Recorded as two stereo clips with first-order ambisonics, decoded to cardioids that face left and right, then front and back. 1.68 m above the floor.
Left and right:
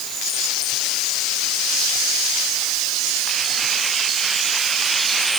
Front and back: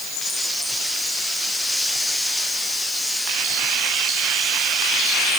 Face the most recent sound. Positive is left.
No sound to turn to.